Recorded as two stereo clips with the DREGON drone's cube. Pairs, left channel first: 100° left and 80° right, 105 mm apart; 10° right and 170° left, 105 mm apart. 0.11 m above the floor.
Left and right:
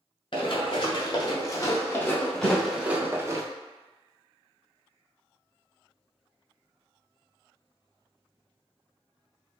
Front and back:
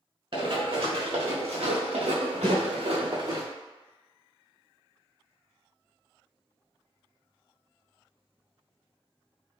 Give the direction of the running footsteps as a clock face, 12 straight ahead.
7 o'clock.